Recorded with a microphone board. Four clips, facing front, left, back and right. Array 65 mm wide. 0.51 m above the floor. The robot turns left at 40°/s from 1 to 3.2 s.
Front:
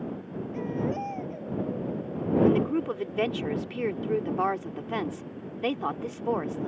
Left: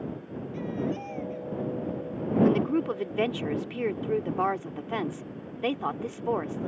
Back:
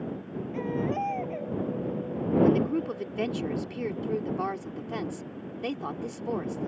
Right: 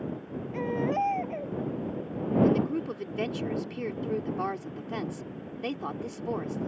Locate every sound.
0.5 s a baby crying: 100° right; by 1.6 s 120° right
2.4 s a woman speaking: 80° left; by 6.7 s 45° left